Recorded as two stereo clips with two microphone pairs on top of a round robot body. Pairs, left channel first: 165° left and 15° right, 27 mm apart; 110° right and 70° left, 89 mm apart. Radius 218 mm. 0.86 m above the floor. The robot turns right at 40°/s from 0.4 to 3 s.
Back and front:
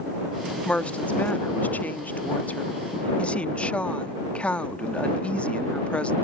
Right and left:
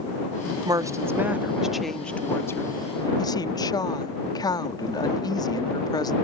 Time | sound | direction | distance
0.7 | a woman speaking | 115° left | ?